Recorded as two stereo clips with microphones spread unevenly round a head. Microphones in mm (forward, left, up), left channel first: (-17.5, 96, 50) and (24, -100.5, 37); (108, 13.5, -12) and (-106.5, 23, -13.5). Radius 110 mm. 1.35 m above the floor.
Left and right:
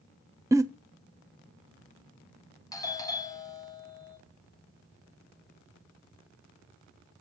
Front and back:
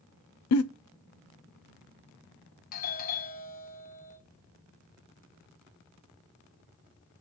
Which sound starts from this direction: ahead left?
A doorbell, at 2.7 s.